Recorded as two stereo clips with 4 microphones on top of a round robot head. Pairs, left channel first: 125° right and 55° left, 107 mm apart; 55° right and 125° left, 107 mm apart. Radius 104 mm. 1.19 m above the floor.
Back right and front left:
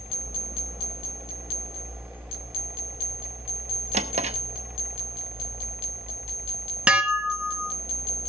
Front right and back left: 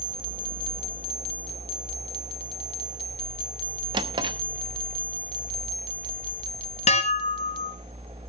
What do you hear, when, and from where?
3.9 s a drawer: 80° left, 0.7 m
6.9 s dishes clattering: 25° right, 1.2 m